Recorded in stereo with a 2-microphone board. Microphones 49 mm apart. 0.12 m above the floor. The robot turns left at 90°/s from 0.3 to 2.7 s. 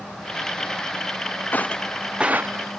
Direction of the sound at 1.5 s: 40° left (ahead or behind).